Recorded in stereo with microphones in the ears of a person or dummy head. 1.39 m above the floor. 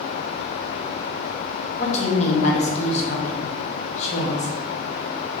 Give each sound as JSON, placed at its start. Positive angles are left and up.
{"t": 1.8, "sound": "a woman speaking", "side_deg": 40, "distance_m": 1.0}